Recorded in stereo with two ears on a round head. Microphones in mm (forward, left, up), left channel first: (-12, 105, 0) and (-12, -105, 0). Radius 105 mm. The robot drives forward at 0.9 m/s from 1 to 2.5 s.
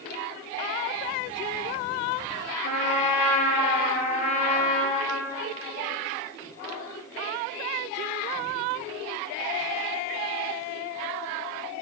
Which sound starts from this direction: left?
A trumpet, at 2.6 s.